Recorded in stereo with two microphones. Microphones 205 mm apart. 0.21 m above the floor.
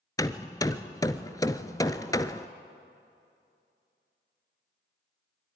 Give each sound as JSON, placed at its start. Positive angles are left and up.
{"t": 0.2, "sound": "hammering", "side_deg": 15, "distance_m": 0.7}